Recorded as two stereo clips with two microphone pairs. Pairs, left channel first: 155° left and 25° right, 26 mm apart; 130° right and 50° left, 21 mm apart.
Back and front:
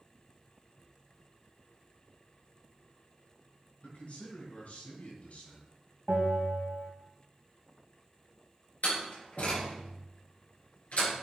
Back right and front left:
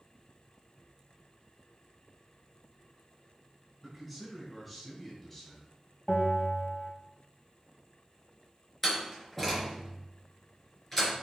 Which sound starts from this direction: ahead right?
A bell, at 6.1 s.